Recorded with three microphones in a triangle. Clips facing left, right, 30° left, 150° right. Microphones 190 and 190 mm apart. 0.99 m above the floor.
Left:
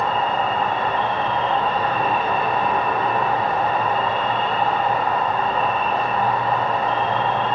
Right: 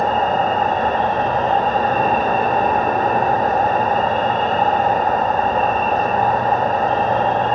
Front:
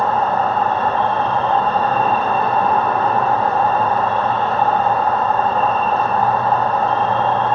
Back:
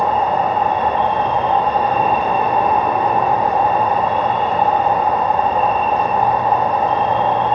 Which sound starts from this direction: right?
An insect, at 0.0 s.